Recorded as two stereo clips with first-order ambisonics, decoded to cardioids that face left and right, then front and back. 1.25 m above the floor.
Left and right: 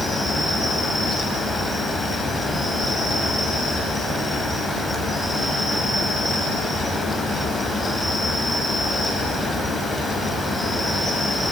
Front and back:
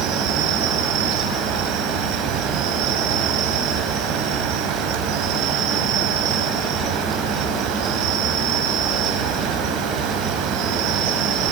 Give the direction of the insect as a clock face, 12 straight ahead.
6 o'clock.